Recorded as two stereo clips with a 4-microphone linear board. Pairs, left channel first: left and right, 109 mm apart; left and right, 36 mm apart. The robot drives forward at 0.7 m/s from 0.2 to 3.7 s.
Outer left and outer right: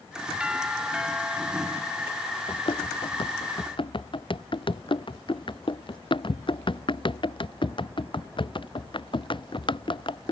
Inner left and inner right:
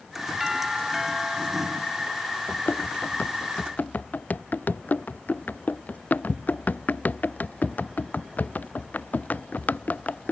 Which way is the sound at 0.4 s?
10° right (ahead or behind).